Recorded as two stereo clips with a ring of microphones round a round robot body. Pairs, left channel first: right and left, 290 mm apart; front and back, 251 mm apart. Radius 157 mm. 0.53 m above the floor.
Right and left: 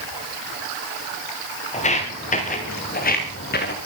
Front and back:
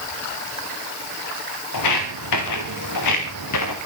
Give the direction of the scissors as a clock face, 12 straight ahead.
I don't hear scissors.